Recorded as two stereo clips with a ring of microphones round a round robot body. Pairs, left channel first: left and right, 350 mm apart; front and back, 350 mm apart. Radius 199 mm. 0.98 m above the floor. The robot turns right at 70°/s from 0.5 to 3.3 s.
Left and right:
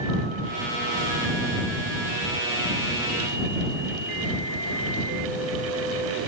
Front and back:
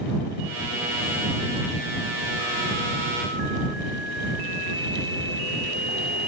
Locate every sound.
Only background noise.